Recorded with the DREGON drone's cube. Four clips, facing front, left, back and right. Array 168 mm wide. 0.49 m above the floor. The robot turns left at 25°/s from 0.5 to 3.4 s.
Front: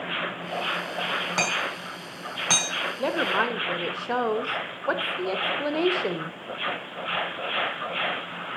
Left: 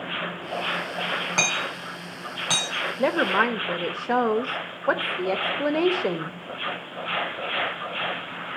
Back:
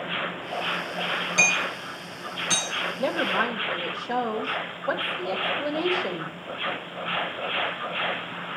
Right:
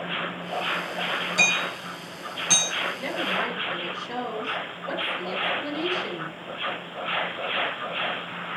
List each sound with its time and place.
1.4 s hammering: 50° left, 4.5 m; by 2.7 s 15° left, 4.5 m
3.0 s a woman speaking: 80° left, 1.6 m; by 6.4 s 70° left, 1.6 m